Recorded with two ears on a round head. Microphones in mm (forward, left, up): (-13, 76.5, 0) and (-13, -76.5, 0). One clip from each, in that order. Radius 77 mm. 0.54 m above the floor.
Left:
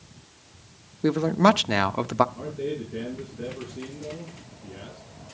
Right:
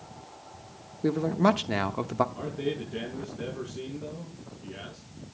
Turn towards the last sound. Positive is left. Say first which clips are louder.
# left 1 dB
turn(degrees=-70)  # may be behind; listen again after turning